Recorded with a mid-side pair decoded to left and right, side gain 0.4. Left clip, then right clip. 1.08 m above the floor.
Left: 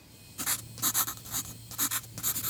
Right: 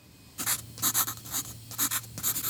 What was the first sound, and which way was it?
Writing, 10° right.